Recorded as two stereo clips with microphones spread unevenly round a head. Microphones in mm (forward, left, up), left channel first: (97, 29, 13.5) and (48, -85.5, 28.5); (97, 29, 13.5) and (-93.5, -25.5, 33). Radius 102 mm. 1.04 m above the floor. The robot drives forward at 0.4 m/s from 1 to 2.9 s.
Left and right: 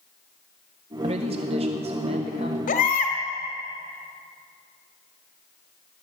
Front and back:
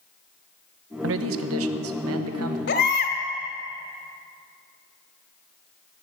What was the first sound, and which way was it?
A man speaking, 165° right.